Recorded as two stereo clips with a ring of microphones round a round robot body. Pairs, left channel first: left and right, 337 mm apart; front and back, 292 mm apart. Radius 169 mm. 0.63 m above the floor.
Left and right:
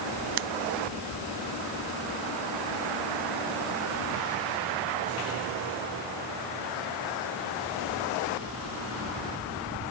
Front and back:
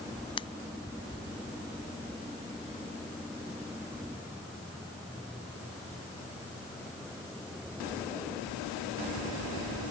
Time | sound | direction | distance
0.4 | scissors | 75° right | ?